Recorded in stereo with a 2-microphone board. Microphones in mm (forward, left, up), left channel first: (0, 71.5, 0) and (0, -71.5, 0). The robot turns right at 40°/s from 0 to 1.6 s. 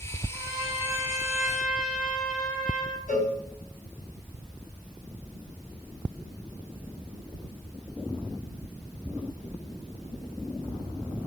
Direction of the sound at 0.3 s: 10° right.